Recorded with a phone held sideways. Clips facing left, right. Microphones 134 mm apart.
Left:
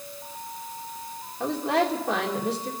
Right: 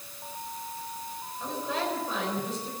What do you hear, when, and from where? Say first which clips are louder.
1.4 s a woman speaking: left 8 dB; 70° left (ahead or behind), 2.5 m